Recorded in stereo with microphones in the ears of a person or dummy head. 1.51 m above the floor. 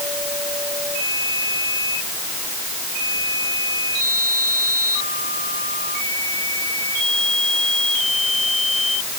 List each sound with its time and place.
Only background noise.